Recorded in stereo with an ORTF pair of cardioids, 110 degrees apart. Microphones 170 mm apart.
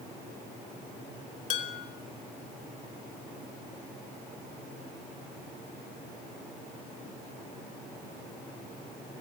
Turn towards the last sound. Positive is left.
turn(degrees=50)